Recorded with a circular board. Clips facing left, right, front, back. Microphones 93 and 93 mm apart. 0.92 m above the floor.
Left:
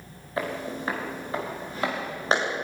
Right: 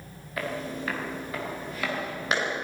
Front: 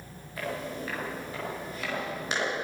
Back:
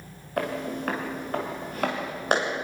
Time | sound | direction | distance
0.4 | footsteps | 150° left | 5 m